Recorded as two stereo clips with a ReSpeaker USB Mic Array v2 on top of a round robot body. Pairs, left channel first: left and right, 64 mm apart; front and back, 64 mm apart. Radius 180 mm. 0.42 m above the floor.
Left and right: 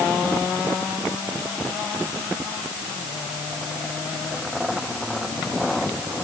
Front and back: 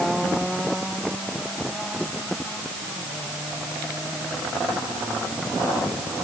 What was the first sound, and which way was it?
Only background noise.